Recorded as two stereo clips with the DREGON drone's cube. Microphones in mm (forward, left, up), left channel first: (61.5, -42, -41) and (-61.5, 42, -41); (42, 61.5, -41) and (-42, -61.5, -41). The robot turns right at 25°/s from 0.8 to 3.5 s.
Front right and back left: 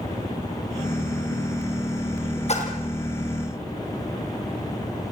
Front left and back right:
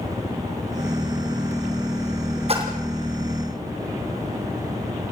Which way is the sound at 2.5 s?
75° right.